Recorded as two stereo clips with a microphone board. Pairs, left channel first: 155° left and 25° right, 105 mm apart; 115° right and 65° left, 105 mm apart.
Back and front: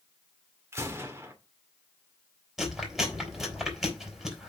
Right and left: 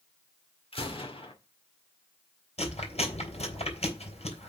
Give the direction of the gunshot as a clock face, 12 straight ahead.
3 o'clock.